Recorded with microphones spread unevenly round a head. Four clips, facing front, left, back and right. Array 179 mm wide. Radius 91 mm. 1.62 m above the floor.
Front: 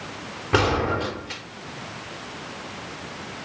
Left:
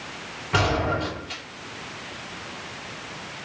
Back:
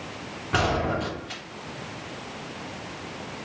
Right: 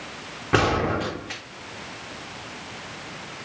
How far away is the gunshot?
About 3.5 m.